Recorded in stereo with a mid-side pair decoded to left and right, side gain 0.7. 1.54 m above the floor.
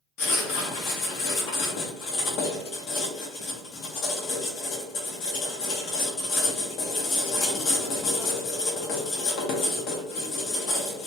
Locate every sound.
0.2 s writing: 60° left, 0.8 m